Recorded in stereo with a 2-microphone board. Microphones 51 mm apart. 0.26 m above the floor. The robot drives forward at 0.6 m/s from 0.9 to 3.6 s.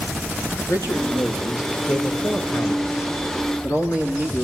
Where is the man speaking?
70° left (ahead or behind), 4 m; by 4.4 s 65° left (ahead or behind), 4 m.